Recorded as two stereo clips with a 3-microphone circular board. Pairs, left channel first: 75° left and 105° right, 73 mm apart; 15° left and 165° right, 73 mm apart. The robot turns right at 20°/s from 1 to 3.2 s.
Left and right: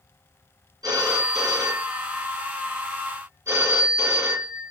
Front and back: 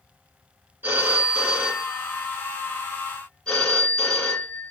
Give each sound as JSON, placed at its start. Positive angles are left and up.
{"t": 0.8, "sound": "a phone ringing", "azimuth_deg": -110, "distance_m": 1.8}